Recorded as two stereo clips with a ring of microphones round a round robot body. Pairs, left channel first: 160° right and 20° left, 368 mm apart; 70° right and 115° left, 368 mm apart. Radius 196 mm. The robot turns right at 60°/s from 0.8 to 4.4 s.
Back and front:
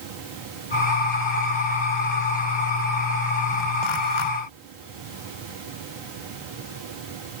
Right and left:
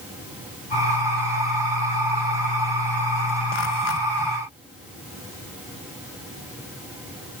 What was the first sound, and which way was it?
Only background noise.